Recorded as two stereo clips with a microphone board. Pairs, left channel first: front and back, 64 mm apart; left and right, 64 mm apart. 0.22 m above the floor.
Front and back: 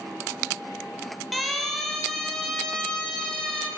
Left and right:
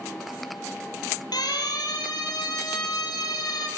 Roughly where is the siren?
Left.